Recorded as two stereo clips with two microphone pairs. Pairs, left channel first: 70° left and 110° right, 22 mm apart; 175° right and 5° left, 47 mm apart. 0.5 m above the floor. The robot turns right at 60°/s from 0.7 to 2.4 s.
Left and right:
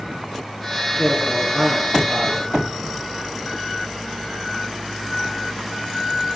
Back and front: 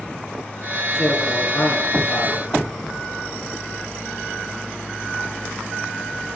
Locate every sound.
1.0 s a man speaking: 120° left, 10 m; by 2.8 s 155° right, 10 m